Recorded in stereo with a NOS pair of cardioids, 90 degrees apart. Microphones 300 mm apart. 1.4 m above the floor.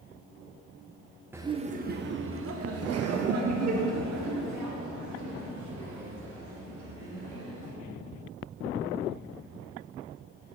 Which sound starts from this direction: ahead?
Laughter, at 1.3 s.